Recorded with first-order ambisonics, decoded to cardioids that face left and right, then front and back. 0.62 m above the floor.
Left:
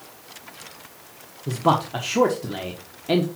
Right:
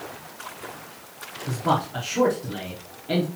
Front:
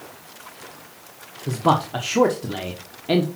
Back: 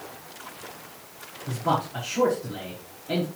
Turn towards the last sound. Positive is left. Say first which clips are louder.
# left 3 dB, front 6 dB
turn(degrees=35)